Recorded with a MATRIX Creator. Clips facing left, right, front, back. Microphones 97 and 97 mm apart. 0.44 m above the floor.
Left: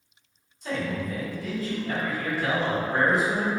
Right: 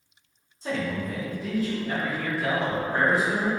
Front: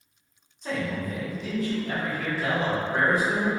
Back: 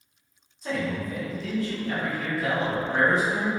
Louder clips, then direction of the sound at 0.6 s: Right 1 dB, back 1 dB; 95° right.